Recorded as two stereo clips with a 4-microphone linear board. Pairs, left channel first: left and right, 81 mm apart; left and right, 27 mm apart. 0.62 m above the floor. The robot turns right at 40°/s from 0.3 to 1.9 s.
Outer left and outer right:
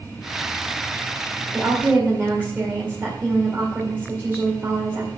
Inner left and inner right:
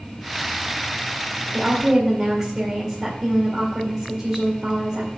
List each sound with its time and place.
1.5 s a woman speaking: 10° right (ahead or behind), 2 m; by 5.1 s 20° right (ahead or behind), 2 m